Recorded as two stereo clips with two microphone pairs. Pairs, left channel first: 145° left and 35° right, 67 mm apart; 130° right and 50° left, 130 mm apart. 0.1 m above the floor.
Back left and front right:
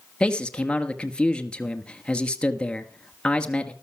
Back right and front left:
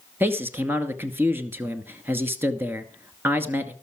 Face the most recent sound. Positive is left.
turn(degrees=95)